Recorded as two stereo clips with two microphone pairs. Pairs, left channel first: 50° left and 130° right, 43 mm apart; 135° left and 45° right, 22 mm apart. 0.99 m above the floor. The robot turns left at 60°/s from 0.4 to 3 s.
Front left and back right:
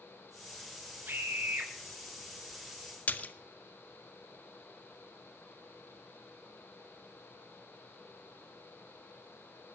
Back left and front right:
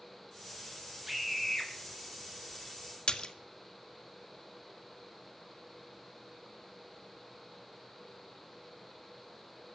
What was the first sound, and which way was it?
A scream, 120° right.